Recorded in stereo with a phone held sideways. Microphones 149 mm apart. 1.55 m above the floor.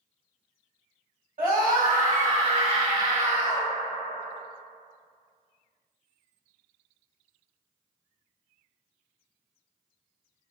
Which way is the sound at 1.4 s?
70° right (ahead or behind).